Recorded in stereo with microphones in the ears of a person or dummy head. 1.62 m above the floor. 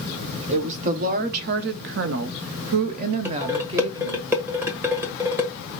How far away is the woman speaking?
About 1.2 m.